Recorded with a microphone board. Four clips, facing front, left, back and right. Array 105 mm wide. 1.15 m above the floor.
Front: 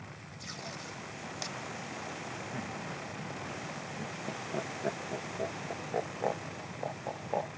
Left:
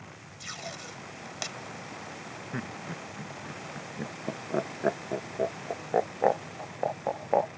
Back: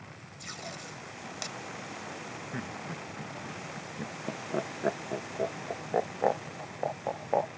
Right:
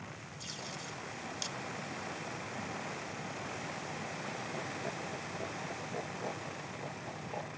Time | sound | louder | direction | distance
0.4 | tape being pulled | left 5 dB, back 1 dB | 100° left | ?
2.5 | laughter | left 7 dB, back 3 dB | 110° left | ?